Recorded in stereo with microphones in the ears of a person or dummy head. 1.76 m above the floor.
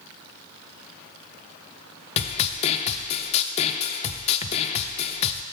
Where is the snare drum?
35° left (ahead or behind), 0.5 m.